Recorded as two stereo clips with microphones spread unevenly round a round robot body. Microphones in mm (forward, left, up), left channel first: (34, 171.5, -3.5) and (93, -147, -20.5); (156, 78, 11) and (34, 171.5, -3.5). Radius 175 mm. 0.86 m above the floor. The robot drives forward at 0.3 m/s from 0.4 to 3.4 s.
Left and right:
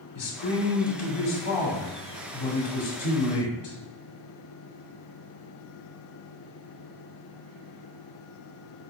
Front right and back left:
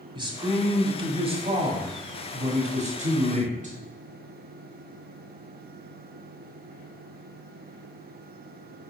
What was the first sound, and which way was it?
A man speaking, 80° left.